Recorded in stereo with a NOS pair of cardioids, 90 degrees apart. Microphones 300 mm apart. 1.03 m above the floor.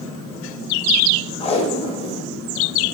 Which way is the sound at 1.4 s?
20° left.